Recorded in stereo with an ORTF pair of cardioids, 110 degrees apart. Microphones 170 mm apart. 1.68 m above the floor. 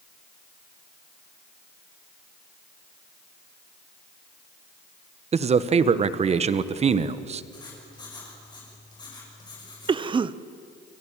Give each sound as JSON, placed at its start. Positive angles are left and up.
{"t": 5.3, "sound": "a man speaking", "azimuth_deg": -35, "distance_m": 1.3}
{"t": 7.5, "sound": "writing", "azimuth_deg": 25, "distance_m": 8.5}
{"t": 9.9, "sound": "a cough", "azimuth_deg": -25, "distance_m": 0.9}